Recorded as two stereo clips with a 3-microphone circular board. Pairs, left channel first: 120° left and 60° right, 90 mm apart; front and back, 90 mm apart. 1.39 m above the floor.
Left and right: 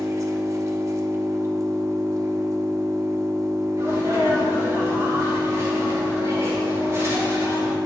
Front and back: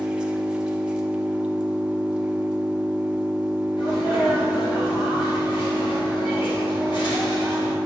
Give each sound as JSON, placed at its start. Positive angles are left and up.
{"t": 0.0, "sound": "an engine running", "azimuth_deg": -105, "distance_m": 0.7}
{"t": 3.8, "sound": "a sneeze", "azimuth_deg": -5, "distance_m": 3.5}